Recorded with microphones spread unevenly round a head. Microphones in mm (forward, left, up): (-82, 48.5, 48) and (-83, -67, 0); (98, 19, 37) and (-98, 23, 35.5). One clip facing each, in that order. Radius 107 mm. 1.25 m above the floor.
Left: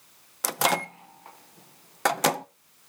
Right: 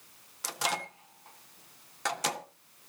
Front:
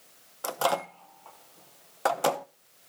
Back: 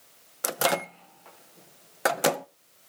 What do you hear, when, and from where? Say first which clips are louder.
0.4 s a microwave: left 9 dB, back 1 dB; 110° left, 0.5 m